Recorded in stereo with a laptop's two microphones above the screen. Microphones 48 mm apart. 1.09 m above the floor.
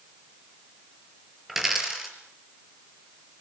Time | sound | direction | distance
1.5 | a dropped coin | 5° right (ahead or behind) | 5 m